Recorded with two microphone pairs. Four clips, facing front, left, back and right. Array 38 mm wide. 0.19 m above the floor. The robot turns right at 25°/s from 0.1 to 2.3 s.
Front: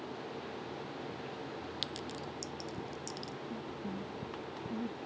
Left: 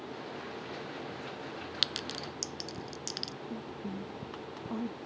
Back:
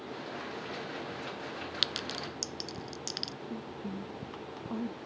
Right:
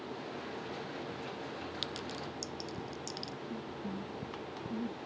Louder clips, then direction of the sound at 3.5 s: Left 1 dB, back 1 dB; 125° left.